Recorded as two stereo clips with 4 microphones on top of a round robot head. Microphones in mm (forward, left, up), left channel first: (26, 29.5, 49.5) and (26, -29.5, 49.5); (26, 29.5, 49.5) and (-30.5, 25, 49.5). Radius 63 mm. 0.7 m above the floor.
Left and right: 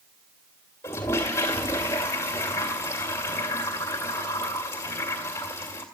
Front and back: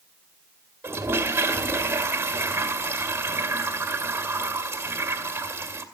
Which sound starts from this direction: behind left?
A toilet flushing, at 0.8 s.